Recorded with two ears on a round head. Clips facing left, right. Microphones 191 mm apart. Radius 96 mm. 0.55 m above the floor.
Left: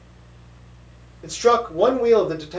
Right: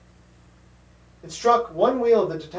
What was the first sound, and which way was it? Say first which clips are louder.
A man speaking: left 3 dB; 25° left (ahead or behind).